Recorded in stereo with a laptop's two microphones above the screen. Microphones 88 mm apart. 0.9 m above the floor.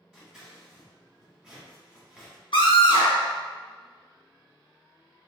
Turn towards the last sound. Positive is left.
turn(degrees=65)  # may be behind; listen again after turning